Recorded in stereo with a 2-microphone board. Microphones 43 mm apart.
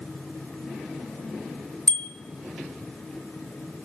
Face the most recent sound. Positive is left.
turn(degrees=25)  # may be behind; listen again after turning